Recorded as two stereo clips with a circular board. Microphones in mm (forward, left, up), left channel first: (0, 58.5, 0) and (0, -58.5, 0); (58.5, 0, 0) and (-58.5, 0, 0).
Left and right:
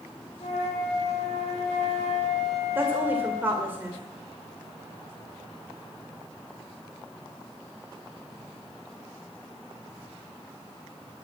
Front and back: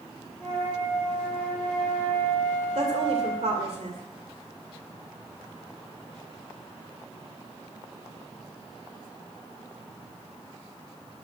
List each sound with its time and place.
0.4 s a flute: 80° left, 6 m
2.8 s a woman speaking: 160° right, 2.5 m